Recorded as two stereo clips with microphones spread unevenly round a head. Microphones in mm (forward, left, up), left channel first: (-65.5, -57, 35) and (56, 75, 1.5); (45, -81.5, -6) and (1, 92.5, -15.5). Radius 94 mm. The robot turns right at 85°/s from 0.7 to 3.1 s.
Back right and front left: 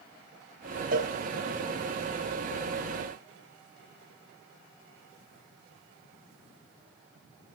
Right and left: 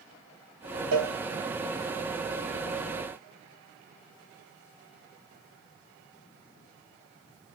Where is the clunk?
I don't hear a clunk.